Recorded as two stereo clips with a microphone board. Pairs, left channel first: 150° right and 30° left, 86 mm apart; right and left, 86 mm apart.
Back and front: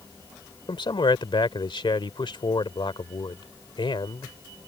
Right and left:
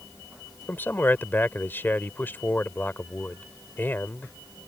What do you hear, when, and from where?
0.7 s a man speaking: 155° right